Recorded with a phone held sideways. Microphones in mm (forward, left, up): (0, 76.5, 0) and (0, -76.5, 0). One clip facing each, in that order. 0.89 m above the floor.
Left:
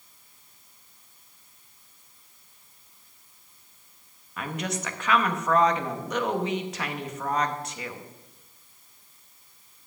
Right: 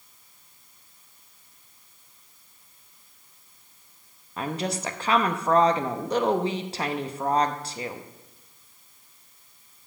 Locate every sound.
4.4 s a woman speaking: 30° right (ahead or behind), 0.7 m